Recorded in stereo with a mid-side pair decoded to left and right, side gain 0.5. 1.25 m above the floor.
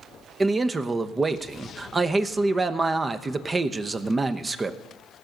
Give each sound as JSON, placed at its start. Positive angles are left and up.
{"t": 0.4, "sound": "a man speaking", "azimuth_deg": -25, "distance_m": 0.9}